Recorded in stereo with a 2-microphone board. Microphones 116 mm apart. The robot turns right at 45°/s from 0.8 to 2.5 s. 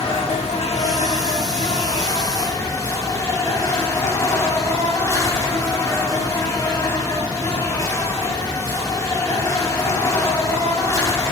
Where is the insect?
70° left, 4 m; by 11.3 s 150° left, 4 m.